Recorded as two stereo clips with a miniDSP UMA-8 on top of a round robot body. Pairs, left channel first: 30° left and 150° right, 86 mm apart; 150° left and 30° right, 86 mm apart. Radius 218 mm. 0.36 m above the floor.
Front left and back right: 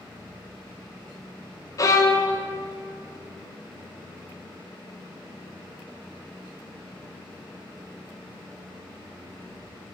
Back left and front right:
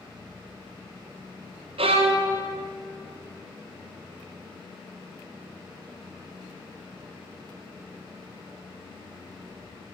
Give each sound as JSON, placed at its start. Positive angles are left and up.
{"t": 1.8, "sound": "a violin", "azimuth_deg": -25, "distance_m": 0.6}